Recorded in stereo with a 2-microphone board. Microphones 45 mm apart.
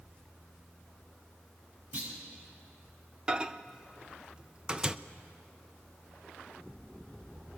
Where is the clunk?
45° right (ahead or behind), 7.5 m.